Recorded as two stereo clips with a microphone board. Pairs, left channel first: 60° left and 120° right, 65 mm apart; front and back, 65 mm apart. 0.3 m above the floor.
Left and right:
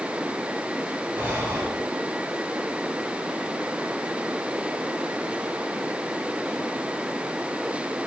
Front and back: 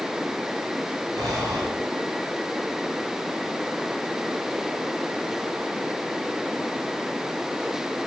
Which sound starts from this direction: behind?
Breathing, at 1.1 s.